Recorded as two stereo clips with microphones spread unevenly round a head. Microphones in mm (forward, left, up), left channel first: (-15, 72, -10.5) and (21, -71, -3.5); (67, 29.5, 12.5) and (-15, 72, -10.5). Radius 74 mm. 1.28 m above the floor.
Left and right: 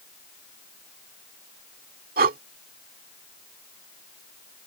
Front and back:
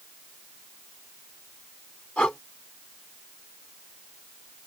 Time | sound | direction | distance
2.2 | breathing | 105° right | ?